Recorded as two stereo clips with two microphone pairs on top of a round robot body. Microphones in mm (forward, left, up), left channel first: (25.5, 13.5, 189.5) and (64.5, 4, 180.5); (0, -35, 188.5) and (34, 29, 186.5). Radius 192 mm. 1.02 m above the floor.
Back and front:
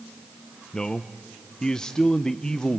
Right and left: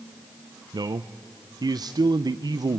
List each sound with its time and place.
0.7 s a man speaking: 90° left, 0.5 m